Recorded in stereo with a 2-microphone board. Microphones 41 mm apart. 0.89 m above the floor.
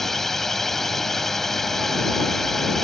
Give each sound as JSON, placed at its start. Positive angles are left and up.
{"t": 0.0, "sound": "a drone", "side_deg": 10}